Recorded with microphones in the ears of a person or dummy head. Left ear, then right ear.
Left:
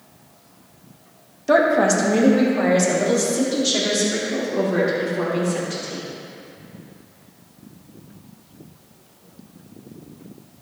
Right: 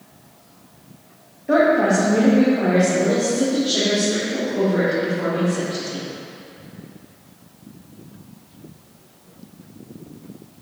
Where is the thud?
No thud in this recording.